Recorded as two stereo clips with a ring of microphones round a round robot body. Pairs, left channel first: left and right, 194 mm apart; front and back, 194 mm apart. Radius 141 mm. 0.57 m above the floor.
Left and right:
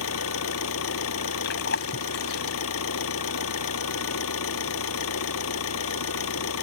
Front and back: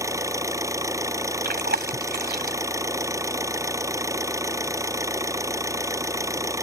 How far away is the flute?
I don't hear a flute.